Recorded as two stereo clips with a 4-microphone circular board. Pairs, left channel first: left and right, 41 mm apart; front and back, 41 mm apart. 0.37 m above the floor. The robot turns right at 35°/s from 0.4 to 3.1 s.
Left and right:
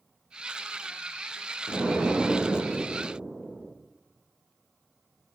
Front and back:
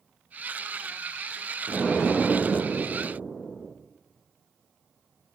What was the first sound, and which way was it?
An explosion, 85° right.